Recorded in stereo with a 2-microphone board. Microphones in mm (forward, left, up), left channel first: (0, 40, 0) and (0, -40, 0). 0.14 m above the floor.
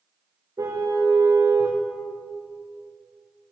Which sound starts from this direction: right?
A car horn, at 0.6 s.